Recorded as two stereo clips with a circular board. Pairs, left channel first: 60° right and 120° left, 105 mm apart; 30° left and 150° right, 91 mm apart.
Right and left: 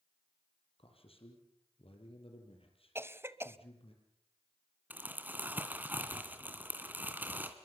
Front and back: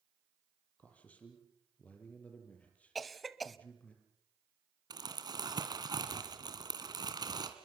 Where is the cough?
120° left, 1.0 m.